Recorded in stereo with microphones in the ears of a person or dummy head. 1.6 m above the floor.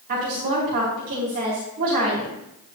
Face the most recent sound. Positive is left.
turn(degrees=-50)  # may be behind; listen again after turning